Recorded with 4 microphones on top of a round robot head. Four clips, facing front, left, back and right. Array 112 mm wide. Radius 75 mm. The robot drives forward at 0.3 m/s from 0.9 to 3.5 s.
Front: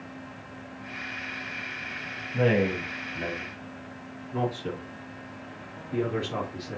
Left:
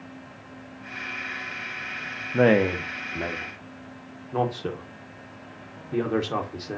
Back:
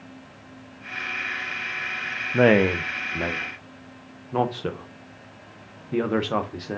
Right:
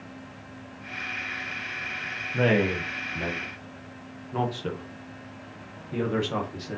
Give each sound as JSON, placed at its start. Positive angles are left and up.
{"t": 2.3, "sound": "a man speaking", "azimuth_deg": 145, "distance_m": 0.5}